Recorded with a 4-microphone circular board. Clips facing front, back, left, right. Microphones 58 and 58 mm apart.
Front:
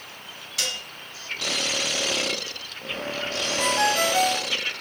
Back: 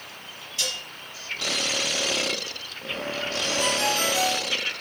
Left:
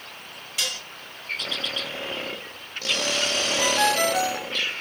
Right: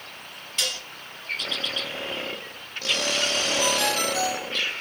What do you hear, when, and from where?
0.6 s dishes clattering: 5° left, 3 m
3.6 s a ringtone: 40° left, 2.5 m